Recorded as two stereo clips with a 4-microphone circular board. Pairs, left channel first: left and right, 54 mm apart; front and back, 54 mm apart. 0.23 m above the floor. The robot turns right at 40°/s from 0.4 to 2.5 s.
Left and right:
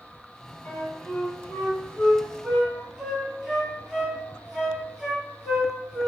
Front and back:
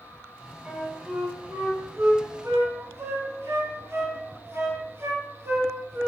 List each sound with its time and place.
0.7 s a flute: 120° left, 1.2 m; by 6.1 s 165° right, 1.2 m